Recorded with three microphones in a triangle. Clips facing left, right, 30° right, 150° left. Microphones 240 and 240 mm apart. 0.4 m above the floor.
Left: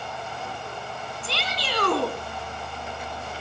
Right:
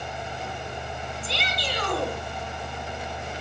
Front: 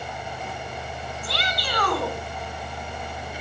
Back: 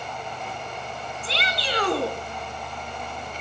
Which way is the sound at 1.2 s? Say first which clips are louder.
Even, back 2 dB; 90° left.